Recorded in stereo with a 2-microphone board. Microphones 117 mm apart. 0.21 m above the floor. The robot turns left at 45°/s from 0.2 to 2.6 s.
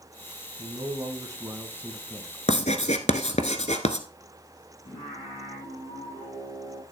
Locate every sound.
0.6 s a man speaking: 105° right, 1.8 m; by 2.4 s 175° left, 1.8 m
2.5 s writing: 75° left (ahead or behind), 1.0 m
4.8 s singing: 60° left (ahead or behind), 6 m